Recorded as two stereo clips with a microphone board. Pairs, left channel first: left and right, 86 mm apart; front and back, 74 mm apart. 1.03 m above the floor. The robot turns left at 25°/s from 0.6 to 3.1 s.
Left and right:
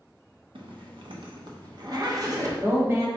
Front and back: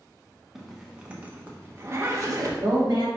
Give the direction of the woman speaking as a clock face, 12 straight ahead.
4 o'clock.